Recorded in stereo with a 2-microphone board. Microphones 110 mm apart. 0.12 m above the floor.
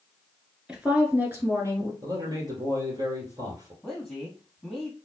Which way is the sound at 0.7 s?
5° right (ahead or behind).